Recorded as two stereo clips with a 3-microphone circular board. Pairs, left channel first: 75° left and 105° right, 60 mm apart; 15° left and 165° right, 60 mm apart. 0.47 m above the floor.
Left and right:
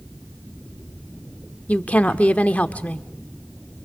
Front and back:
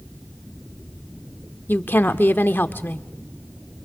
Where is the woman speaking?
30° left, 0.8 m.